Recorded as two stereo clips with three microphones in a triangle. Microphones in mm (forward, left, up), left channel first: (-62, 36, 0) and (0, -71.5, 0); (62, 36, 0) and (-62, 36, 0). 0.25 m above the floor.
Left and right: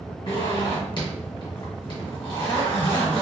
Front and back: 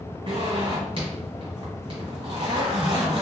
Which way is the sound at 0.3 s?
160° left.